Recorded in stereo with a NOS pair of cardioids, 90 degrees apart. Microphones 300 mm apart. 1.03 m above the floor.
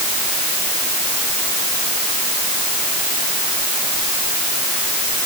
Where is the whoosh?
I don't hear a whoosh.